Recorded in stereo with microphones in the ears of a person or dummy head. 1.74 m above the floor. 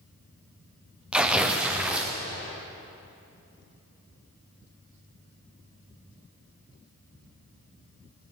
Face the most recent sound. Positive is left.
turn(degrees=-10)  # may be behind; listen again after turning